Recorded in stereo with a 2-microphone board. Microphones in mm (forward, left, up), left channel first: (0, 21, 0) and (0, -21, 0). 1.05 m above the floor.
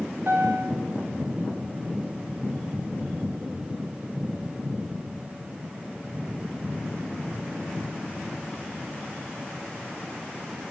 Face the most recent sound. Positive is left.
turn(degrees=-50)  # may be behind; listen again after turning